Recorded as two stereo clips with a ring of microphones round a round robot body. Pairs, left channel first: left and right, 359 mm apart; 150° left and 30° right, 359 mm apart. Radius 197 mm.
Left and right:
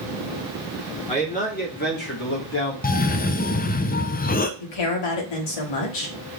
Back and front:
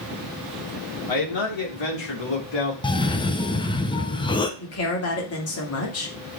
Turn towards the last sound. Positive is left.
turn(degrees=100)